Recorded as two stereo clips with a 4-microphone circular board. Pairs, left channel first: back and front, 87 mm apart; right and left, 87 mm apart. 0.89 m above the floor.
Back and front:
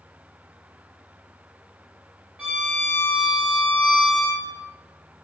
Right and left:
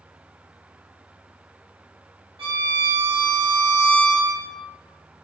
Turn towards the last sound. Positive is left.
turn(degrees=80)